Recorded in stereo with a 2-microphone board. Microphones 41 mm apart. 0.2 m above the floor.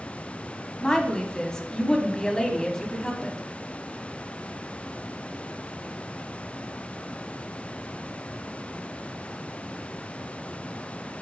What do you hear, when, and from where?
0.8 s a woman speaking: 15° left (ahead or behind), 1.0 m